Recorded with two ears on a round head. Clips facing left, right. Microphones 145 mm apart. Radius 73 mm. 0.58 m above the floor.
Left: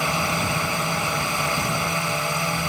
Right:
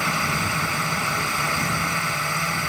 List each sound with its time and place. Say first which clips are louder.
0.0 s a drone: left 2 dB; 20° left (ahead or behind)